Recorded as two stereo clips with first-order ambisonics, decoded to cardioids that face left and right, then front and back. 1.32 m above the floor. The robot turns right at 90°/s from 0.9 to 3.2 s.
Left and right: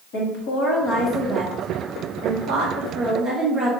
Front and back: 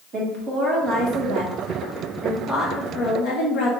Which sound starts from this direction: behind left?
A woman speaking, at 0.1 s.